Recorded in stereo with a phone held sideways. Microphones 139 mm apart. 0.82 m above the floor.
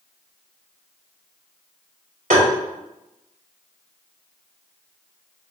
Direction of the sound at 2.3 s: 75° right (ahead or behind).